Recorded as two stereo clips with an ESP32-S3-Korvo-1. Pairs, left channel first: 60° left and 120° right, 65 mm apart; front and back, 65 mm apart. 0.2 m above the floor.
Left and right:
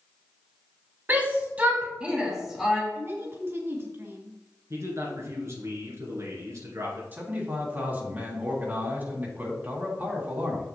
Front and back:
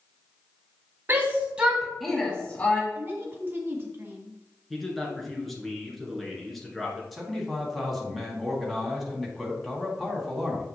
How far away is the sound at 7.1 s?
About 1.9 m.